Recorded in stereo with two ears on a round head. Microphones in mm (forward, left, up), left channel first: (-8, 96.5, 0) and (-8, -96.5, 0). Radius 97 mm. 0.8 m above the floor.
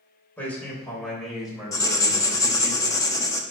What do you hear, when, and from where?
0.4 s a man speaking: 10° left (ahead or behind), 3 m; by 2.7 s 10° right (ahead or behind), 3.5 m
1.7 s writing: 15° left (ahead or behind), 0.9 m